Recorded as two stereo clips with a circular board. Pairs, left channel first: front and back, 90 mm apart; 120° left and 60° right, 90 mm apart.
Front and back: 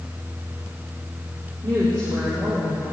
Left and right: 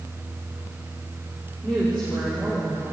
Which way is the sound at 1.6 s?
160° right.